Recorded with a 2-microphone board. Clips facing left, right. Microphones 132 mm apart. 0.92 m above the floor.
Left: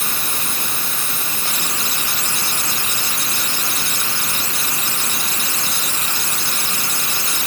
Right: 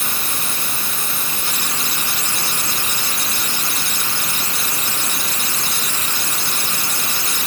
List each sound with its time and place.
Only background noise.